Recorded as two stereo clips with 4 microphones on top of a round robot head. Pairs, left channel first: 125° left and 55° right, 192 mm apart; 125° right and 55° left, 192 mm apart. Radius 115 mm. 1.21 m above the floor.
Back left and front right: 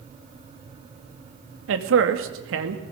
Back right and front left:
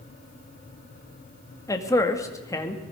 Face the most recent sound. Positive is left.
turn(degrees=-55)